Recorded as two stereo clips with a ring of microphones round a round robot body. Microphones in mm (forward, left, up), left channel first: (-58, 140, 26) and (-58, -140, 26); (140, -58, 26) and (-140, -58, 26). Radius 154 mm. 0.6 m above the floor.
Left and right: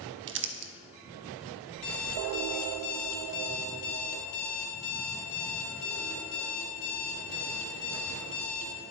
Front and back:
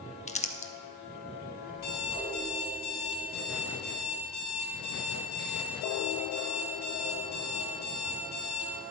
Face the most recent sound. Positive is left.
turn(degrees=40)